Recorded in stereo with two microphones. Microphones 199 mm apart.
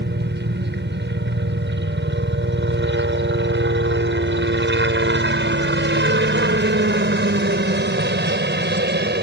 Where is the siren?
No siren in this recording.